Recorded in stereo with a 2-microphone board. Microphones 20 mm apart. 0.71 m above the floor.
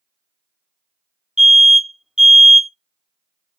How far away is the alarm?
About 1.5 m.